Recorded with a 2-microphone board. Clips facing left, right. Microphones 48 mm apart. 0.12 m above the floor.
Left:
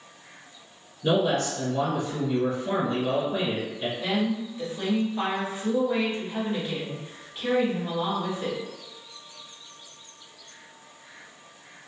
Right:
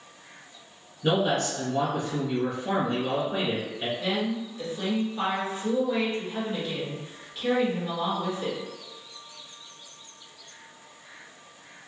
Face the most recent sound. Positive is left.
turn(degrees=20)  # may be behind; listen again after turning